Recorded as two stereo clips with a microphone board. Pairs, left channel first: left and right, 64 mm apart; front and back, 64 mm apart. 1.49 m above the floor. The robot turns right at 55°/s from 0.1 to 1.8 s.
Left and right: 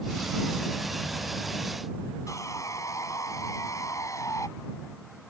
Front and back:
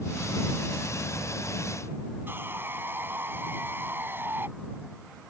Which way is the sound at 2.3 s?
125° left.